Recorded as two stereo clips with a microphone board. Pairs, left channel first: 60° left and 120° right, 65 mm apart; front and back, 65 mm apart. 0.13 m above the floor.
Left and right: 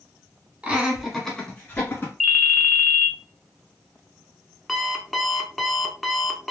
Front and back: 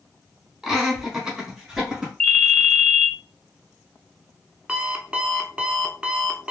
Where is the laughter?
105° right, 1.2 m; by 2.1 s 105° left, 1.6 m.